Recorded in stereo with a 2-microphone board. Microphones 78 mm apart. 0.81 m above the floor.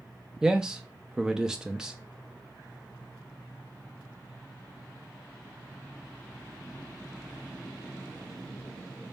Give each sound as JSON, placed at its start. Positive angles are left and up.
{"t": 0.4, "sound": "a man speaking", "side_deg": -10, "distance_m": 0.6}